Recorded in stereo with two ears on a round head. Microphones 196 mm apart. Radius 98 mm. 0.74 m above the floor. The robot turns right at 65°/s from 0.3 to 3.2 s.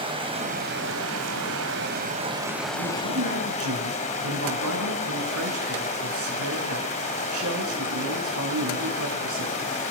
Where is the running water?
155° right, 4.5 m; by 9.9 s 35° left, 4.5 m.